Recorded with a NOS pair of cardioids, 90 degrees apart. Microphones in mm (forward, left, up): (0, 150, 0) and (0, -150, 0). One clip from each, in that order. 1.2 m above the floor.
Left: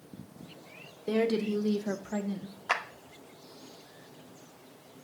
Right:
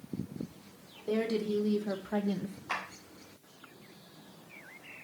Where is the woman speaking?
35° left, 1.1 m; by 2.6 s 45° right, 0.5 m.